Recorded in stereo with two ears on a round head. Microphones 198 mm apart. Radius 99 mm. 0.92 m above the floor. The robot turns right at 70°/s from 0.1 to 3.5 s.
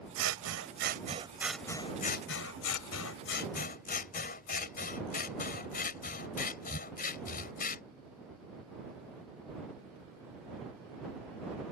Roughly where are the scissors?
Right.